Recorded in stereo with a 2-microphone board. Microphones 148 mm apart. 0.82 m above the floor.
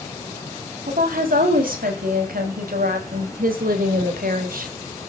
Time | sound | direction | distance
0.9 | a woman speaking | 80° right | 5 m